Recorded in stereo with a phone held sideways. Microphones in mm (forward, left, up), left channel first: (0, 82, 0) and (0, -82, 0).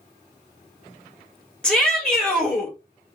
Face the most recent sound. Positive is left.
turn(degrees=5)  # may be behind; listen again after turning